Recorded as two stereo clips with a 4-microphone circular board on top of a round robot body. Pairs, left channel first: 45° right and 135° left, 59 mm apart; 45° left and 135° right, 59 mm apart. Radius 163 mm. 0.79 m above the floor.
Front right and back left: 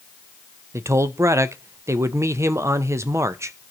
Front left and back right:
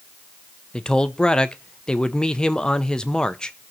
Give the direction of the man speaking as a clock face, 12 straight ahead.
8 o'clock.